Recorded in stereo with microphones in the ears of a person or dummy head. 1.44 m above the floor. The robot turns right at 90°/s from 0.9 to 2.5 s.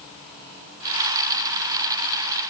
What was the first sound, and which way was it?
Only background noise.